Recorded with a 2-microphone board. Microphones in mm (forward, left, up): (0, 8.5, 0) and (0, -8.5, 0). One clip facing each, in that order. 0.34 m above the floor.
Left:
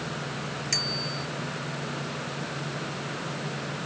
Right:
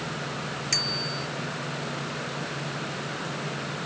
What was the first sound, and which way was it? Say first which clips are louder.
A bicycle bell: right 2 dB; 5° right (ahead or behind).